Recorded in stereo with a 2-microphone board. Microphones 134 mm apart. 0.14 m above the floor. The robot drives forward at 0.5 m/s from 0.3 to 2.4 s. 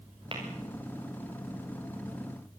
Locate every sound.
0.3 s tapping: 40° right (ahead or behind), 6 m